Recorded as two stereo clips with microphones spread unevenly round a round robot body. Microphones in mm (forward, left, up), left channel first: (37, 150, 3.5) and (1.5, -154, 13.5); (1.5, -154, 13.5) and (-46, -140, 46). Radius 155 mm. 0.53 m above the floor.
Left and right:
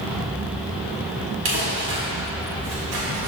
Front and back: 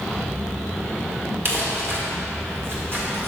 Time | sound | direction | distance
1.4 | crumpling | 135° right | 1.9 m